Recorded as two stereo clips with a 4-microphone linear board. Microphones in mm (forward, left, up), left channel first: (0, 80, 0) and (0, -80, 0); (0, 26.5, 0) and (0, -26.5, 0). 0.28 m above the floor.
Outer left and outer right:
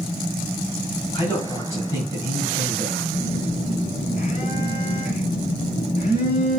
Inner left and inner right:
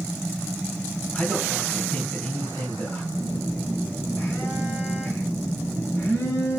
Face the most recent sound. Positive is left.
turn(degrees=60)  # may be behind; listen again after turning